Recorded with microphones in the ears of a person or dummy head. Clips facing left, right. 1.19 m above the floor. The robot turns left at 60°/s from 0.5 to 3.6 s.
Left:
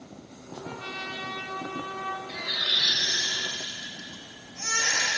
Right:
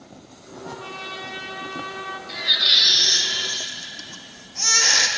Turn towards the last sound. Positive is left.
turn(degrees=-85)